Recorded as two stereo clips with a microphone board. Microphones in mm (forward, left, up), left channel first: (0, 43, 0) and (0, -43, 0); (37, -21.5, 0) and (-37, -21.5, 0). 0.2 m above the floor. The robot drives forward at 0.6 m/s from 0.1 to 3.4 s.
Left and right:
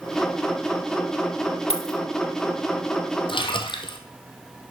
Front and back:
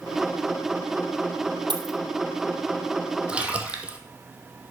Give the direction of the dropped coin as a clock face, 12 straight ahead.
6 o'clock.